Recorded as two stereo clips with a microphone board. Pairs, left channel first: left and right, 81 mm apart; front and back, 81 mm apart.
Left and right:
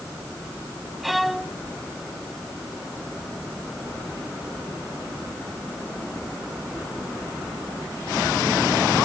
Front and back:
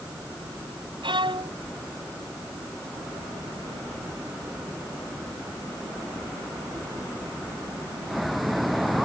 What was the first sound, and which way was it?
A violin, straight behind.